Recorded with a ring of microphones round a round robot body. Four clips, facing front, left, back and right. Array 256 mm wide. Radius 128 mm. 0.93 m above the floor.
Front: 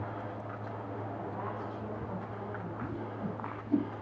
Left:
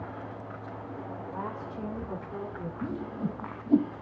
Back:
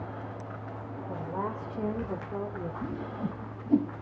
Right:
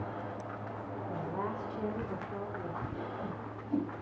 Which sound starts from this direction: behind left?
A whoosh, at 2.8 s.